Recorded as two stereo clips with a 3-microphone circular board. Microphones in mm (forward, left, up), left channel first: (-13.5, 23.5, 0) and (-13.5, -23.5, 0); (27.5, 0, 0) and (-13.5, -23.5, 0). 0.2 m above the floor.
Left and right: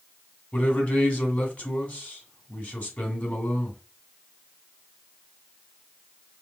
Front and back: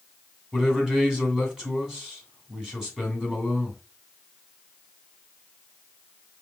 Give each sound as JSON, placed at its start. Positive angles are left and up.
{"t": 0.5, "sound": "a man speaking", "azimuth_deg": 145, "distance_m": 2.0}